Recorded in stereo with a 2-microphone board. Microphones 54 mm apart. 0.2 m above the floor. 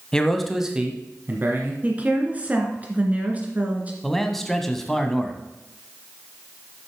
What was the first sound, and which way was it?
A man speaking, 10° left (ahead or behind).